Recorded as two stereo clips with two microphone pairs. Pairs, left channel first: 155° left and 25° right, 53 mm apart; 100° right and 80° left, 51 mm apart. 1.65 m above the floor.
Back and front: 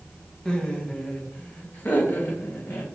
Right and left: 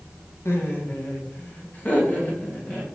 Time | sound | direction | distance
0.5 | laughter | 130° right | 1.9 m